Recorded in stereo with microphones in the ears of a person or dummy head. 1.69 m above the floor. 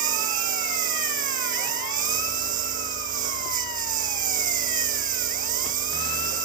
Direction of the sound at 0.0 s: 35° right (ahead or behind).